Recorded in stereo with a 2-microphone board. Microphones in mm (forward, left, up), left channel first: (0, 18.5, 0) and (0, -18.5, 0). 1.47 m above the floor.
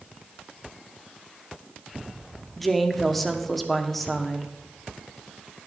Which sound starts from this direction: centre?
A woman speaking, at 2.6 s.